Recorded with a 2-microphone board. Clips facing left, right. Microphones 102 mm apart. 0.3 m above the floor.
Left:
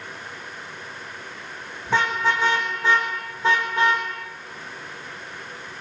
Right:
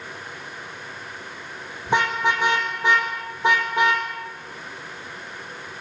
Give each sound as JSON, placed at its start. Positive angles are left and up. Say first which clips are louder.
{"t": 1.9, "sound": "a car horn", "louder": "right 1 dB", "side_deg": -20, "distance_m": 5.5}